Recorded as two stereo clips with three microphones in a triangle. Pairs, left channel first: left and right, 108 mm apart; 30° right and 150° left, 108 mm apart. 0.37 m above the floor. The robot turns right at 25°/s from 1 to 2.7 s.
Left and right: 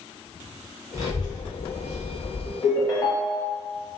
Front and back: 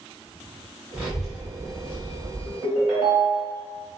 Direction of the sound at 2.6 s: 150° left.